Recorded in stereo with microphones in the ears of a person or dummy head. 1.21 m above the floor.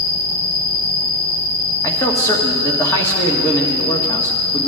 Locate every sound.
0.0 s an insect: 50° left (ahead or behind), 2.5 m
1.8 s a man speaking: 15° left (ahead or behind), 1.5 m